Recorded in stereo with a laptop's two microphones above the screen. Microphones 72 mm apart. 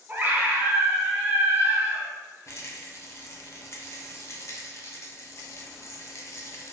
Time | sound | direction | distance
0.1 | a scream | 25° right (ahead or behind) | 0.5 m
2.5 | a rattle | 40° left (ahead or behind) | 0.5 m